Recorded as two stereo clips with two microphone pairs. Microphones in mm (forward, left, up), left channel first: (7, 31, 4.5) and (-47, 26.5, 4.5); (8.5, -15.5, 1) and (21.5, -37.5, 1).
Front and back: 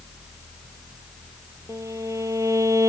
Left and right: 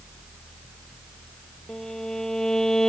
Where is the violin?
170° right.